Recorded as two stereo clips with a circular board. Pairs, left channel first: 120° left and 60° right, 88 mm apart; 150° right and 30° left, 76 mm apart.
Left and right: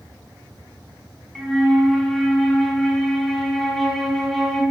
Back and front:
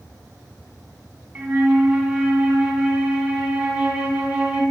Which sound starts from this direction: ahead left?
A flute, at 1.4 s.